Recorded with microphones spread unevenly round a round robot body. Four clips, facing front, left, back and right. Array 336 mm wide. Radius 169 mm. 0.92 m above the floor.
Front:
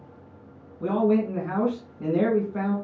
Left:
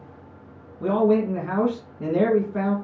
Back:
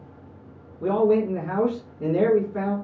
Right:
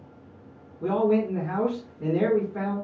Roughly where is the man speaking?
Ahead left.